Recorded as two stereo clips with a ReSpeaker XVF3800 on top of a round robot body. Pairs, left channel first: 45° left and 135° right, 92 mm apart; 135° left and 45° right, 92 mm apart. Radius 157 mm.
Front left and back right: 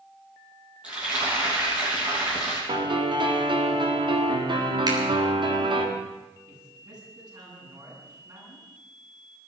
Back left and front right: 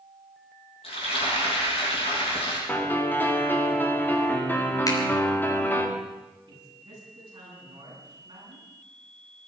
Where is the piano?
155° right, 2.5 m.